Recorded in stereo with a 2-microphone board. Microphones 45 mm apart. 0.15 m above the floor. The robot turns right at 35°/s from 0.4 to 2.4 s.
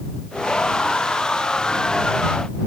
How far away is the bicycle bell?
I don't hear a bicycle bell.